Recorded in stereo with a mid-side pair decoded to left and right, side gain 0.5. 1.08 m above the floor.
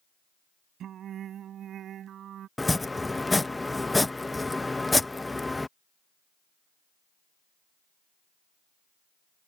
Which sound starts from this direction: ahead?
Chopping, at 2.6 s.